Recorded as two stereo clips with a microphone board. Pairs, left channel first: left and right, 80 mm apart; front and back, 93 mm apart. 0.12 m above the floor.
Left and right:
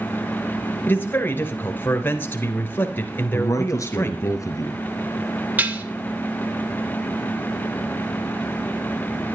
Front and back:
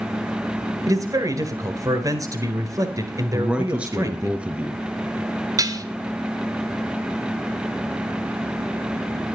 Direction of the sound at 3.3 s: 110° left.